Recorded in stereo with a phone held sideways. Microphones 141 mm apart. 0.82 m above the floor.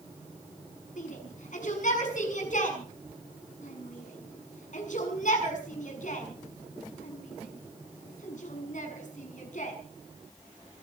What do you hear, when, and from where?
1.0 s a shout: 65° left (ahead or behind), 6.5 m